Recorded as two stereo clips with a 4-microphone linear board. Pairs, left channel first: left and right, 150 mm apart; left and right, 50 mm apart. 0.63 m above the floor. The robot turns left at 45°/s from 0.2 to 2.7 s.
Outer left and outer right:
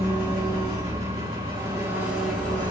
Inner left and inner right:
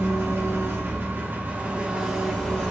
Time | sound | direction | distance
0.0 | an engine running | 85° right | 2.5 m